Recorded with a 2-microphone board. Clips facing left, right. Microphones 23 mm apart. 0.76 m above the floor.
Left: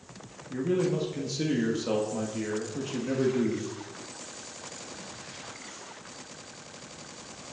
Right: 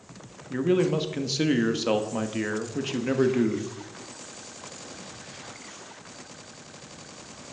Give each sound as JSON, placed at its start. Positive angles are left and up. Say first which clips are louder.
{"t": 0.5, "sound": "a man speaking", "louder": "right 4 dB", "side_deg": -40, "distance_m": 1.1}